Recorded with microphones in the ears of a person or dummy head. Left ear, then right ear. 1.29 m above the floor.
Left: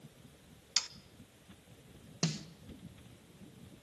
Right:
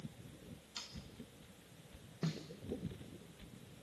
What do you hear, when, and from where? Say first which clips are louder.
0.8 s sawing: left 14 dB; 55° left (ahead or behind), 0.6 m
2.2 s a snare drum: left 7 dB; 75° left (ahead or behind), 1.1 m